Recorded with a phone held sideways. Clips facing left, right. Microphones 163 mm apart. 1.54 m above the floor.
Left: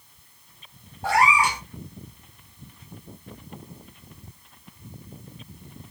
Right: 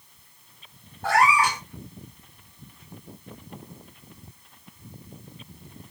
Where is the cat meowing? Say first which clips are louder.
Even; 10° left (ahead or behind), 1.9 m.